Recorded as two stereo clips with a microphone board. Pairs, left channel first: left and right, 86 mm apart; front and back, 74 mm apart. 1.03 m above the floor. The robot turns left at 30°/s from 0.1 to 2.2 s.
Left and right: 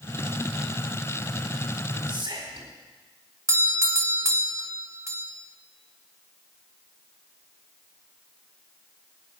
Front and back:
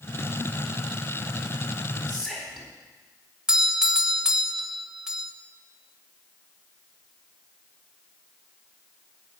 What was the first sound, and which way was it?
Whispering, 90° right.